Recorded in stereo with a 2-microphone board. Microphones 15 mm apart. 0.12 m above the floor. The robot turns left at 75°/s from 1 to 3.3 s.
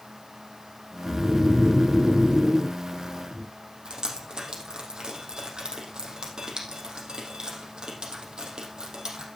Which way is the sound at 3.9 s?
65° right (ahead or behind).